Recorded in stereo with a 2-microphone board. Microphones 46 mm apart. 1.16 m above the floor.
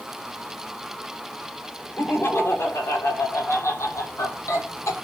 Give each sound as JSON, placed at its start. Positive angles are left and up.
{"t": 2.0, "sound": "laughter", "side_deg": 55, "distance_m": 3.5}